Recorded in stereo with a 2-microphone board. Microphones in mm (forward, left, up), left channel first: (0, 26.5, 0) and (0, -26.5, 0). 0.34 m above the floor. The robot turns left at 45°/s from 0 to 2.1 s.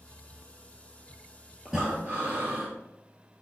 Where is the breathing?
10° right (ahead or behind), 2.5 m; by 2.7 s 30° right (ahead or behind), 2.5 m.